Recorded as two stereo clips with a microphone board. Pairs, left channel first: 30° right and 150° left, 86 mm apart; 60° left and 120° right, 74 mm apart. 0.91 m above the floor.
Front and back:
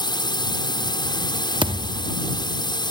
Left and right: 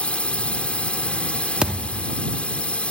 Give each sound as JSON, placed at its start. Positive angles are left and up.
{"t": 0.0, "sound": "a drone", "azimuth_deg": -10}
{"t": 1.6, "sound": "a thud", "azimuth_deg": 165}